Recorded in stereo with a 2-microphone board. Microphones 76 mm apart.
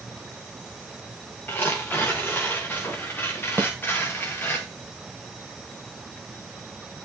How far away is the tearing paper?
About 5.5 m.